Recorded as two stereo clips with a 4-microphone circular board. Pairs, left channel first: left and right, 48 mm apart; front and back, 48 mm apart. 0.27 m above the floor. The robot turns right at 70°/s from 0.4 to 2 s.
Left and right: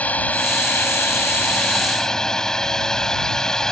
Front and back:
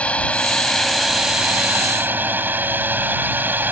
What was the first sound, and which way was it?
A drone, 50° left.